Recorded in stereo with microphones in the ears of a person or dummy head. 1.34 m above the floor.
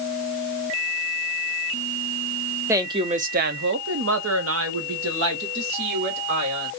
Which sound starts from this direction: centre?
A woman speaking, at 2.7 s.